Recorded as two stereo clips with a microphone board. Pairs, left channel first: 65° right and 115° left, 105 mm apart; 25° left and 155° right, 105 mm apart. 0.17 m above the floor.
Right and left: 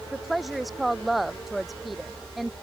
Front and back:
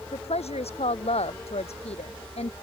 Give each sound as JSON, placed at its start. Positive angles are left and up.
{"t": 0.1, "sound": "a woman speaking", "azimuth_deg": 25}